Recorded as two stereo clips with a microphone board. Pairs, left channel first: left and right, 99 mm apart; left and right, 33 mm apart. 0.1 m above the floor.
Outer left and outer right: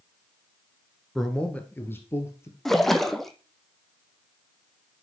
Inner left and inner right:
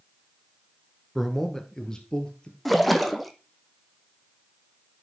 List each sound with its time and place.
1.1 s a man speaking: centre (ahead or behind), 1.3 m; by 2.5 s 30° left (ahead or behind), 2.5 m
2.6 s a splash: 5° left (ahead or behind), 0.9 m